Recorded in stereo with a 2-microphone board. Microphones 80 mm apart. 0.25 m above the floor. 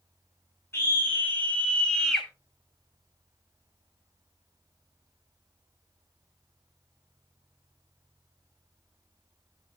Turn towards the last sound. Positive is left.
turn(degrees=5)  # may be behind; listen again after turning